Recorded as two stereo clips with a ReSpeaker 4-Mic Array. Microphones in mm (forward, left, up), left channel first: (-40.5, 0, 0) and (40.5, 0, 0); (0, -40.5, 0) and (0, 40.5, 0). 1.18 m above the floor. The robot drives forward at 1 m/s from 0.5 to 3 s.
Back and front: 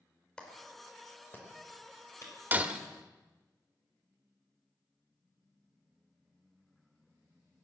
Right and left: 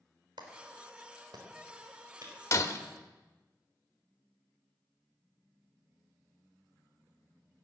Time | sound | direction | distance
0.4 | a clap | 105° left | 3.5 m
2.5 | breaking glass | 55° right | 1.2 m